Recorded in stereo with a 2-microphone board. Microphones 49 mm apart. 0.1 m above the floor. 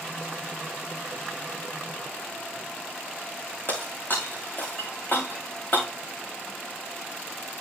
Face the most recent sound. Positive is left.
turn(degrees=45)  # may be behind; listen again after turning